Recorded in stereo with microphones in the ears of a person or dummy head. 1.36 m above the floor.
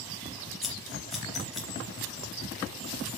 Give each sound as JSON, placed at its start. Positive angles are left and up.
{"t": 0.6, "sound": "scissors", "side_deg": 0, "distance_m": 3.0}